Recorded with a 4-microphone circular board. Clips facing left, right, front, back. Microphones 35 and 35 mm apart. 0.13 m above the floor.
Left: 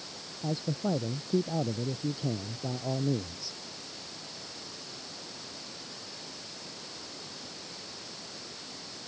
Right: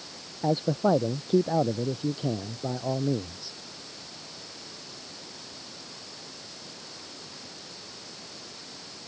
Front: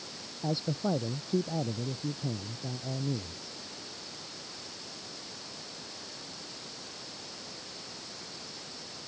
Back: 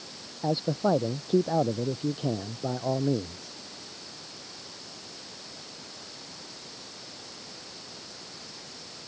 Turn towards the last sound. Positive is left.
turn(degrees=-165)